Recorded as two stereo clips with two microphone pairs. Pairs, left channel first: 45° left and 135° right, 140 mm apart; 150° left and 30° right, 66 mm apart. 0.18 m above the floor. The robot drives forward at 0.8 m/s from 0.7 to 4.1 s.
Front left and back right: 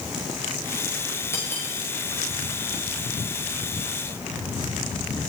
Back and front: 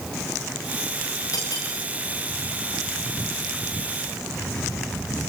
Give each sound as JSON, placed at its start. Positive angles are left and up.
{"t": 1.3, "sound": "cutlery clinking", "azimuth_deg": 115, "distance_m": 10.0}